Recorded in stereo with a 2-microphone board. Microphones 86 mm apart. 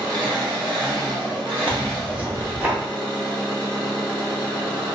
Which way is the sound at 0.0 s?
60° right (ahead or behind).